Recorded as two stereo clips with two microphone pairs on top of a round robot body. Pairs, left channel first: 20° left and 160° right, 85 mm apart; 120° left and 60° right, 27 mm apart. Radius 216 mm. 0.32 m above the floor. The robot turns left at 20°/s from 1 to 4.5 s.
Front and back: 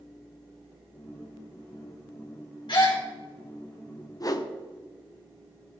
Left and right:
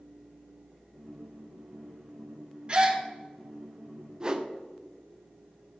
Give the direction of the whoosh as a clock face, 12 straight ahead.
12 o'clock.